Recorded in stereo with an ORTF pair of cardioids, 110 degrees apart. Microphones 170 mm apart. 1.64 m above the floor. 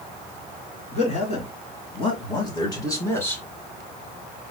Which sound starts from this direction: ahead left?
A man speaking, at 0.9 s.